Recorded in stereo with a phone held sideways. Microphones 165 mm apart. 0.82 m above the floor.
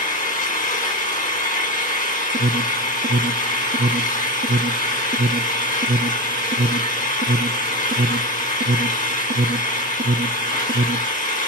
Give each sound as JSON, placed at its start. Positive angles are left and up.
{"t": 0.0, "sound": "an engine running", "side_deg": 55, "distance_m": 2.5}
{"t": 2.3, "sound": "an alarm", "side_deg": -60, "distance_m": 0.6}